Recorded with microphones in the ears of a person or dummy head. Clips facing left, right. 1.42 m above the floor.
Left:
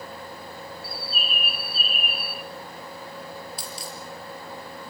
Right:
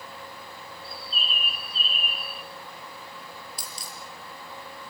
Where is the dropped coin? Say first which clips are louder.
Left 6 dB; 45° right (ahead or behind), 5 m.